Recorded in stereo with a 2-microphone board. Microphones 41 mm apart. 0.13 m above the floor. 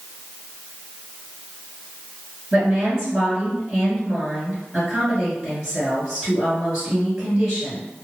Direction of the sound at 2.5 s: 10° right (ahead or behind).